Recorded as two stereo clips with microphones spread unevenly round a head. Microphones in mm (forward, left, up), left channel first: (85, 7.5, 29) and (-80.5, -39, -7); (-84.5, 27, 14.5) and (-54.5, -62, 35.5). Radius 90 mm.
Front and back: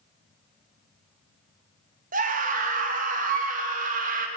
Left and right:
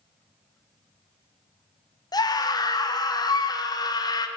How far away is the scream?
About 1.7 m.